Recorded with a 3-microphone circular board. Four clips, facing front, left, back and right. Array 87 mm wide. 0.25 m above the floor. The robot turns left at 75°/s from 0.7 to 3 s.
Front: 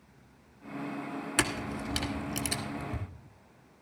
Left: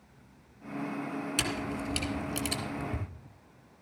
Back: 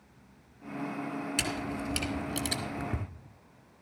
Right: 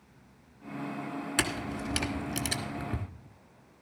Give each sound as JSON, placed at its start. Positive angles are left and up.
{"t": 1.4, "sound": "a camera shutter", "azimuth_deg": -25, "distance_m": 1.4}